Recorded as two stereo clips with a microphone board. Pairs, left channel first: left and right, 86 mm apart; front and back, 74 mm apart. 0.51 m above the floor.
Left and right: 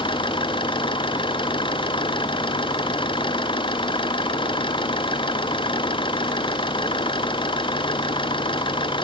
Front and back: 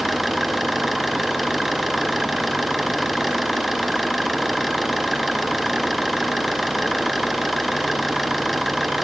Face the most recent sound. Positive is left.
turn(degrees=90)